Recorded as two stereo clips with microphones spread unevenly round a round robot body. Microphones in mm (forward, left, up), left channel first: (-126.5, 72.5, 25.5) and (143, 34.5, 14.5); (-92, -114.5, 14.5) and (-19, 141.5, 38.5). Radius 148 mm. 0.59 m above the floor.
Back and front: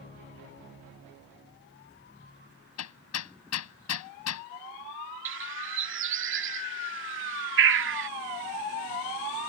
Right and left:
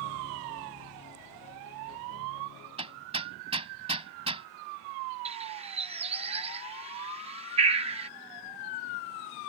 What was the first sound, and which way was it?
Hammering, 145° left.